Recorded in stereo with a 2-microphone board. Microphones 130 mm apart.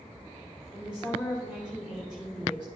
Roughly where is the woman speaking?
Centre.